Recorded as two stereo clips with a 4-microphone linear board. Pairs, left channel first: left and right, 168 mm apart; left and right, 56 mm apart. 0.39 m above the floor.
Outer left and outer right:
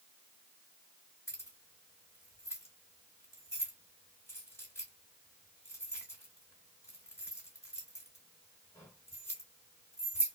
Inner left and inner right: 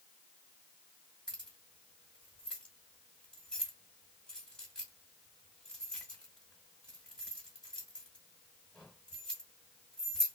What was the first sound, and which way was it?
Keys jangling, 15° left (ahead or behind).